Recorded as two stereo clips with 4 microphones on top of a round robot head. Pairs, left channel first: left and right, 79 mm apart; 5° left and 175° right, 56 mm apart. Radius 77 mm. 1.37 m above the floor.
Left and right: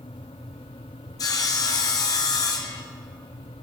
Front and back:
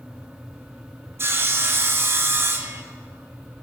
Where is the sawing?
140° left, 1.0 m.